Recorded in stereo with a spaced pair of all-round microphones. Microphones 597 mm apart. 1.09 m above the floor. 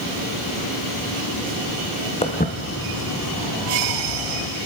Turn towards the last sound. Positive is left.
turn(degrees=60)  # may be behind; listen again after turning